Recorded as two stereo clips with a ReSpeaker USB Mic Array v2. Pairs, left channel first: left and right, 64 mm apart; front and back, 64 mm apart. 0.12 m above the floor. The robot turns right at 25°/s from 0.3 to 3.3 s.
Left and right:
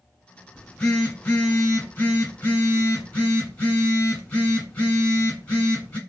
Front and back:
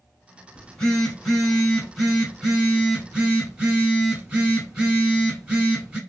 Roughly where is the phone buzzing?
Ahead left.